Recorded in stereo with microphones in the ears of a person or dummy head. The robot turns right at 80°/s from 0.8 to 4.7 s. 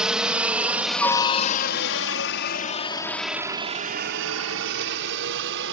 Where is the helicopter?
5° right (ahead or behind); by 5.7 s 65° right (ahead or behind).